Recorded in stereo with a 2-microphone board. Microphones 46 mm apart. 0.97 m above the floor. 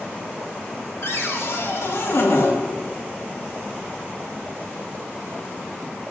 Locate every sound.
1.0 s a cupboard door: 60° left (ahead or behind), 1.7 m